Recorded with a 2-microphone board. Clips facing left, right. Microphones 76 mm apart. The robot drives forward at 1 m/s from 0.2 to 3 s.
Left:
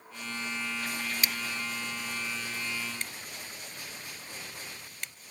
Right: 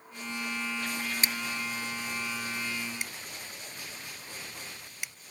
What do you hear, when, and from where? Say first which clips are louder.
1.2 s scissors: right 1 dB; 35° right (ahead or behind); by 5.1 s 10° right (ahead or behind)